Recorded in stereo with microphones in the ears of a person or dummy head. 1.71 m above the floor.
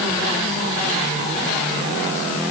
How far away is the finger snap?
I don't hear a finger snap.